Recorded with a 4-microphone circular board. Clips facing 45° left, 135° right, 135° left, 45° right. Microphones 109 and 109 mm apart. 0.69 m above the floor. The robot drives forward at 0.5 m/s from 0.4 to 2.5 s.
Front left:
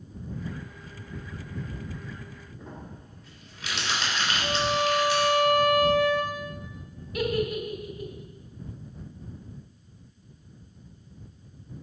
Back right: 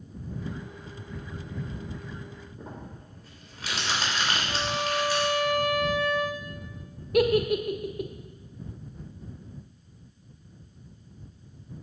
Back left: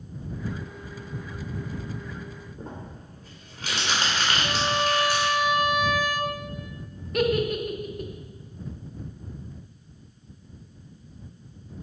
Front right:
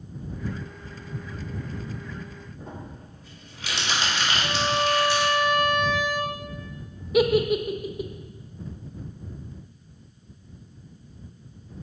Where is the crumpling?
175° left, 3 m.